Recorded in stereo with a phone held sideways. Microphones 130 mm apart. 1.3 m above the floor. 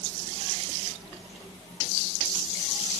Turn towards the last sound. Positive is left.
No sound to turn to.